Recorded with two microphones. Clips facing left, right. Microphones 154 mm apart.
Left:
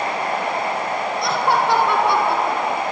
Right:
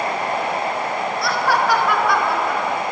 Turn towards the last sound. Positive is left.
turn(degrees=25)  # may be behind; listen again after turning